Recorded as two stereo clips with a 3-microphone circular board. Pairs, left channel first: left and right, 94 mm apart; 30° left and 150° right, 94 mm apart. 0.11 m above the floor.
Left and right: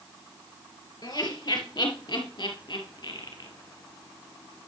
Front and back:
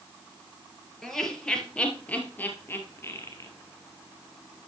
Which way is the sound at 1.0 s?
115° left.